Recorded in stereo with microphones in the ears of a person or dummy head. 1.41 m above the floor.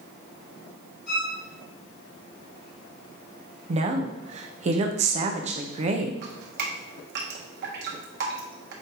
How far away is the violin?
About 4 m.